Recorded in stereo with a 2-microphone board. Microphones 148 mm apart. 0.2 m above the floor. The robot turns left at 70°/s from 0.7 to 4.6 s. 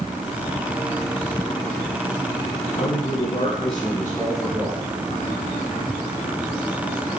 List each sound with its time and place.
2.7 s a man speaking: 115° left, 3 m; by 4.8 s 15° right, 3 m